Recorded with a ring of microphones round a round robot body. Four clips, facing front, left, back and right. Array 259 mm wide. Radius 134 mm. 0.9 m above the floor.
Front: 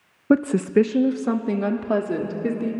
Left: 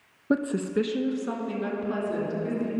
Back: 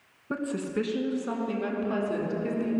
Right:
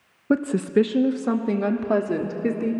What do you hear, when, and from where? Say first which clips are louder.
0.3 s a woman speaking: right 5 dB, front 12 dB; 10° right, 0.9 m; by 2.7 s 55° right, 3 m